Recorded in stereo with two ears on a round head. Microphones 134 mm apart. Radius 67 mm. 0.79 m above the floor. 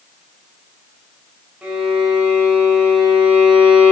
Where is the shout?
No shout in this recording.